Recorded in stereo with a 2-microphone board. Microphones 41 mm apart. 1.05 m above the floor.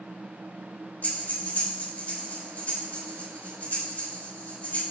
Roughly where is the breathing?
Left.